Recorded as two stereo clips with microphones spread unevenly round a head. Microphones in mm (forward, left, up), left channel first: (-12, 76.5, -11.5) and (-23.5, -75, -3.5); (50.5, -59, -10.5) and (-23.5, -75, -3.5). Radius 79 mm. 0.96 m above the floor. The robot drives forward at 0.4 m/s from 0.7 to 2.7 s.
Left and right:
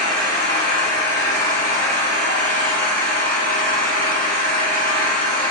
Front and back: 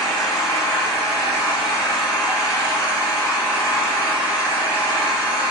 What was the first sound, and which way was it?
An engine running, 150° left.